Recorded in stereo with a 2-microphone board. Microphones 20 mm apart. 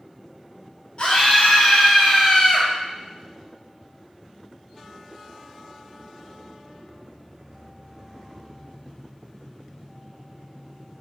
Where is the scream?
55° left (ahead or behind), 2.5 m.